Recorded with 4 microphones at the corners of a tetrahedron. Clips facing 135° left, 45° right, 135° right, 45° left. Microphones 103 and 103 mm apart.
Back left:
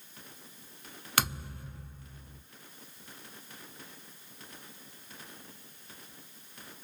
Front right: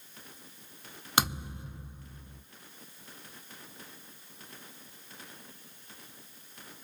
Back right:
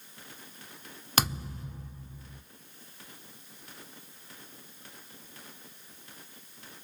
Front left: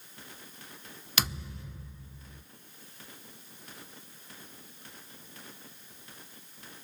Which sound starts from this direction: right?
A thud, at 1.2 s.